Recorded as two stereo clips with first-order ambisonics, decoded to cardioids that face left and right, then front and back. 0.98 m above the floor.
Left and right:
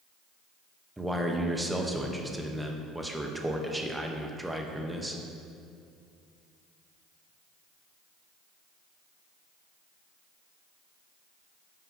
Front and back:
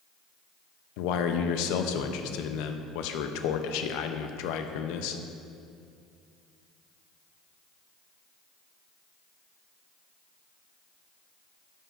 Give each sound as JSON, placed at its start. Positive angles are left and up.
{"t": 1.0, "sound": "a man speaking", "azimuth_deg": -5, "distance_m": 0.5}